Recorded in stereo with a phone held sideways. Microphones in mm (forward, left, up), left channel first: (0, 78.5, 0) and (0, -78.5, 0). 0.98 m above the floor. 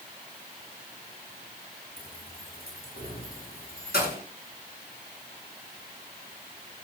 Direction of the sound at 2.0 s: 65° left (ahead or behind).